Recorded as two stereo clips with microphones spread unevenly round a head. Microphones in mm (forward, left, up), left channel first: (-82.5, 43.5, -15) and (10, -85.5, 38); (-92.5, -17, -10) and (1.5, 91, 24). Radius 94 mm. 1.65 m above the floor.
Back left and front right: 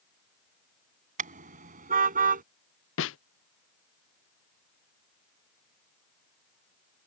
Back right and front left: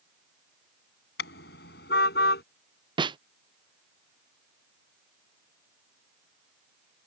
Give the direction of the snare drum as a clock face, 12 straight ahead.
8 o'clock.